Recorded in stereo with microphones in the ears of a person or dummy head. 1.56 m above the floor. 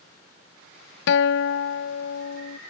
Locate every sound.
1.1 s a guitar: 65° left (ahead or behind)